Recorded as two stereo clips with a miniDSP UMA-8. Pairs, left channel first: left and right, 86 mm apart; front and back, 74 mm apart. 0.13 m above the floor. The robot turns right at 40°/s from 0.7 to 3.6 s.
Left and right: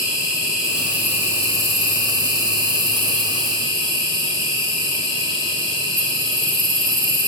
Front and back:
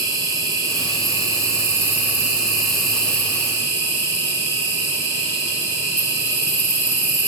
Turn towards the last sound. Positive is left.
turn(degrees=-55)